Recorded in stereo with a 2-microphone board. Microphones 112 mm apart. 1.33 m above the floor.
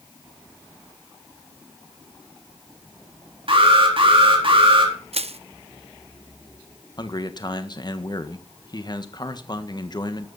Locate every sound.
3.5 s an alarm: 55° right (ahead or behind), 4 m
5.1 s crushing: 70° right (ahead or behind), 0.7 m
7.0 s a man speaking: 40° left (ahead or behind), 1.5 m